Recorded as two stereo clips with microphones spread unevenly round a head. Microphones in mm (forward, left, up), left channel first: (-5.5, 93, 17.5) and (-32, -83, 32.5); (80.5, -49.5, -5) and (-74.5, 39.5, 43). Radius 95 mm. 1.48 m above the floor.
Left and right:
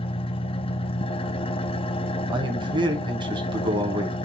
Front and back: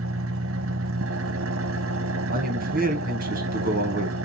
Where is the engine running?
145° left, 0.8 m.